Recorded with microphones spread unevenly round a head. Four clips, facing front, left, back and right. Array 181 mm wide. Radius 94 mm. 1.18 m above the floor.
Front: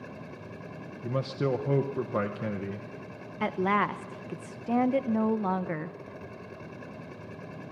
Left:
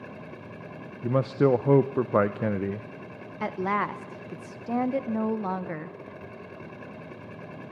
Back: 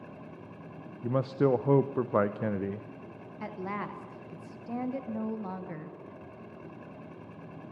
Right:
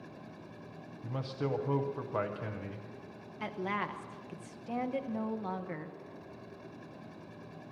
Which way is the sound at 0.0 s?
60° left.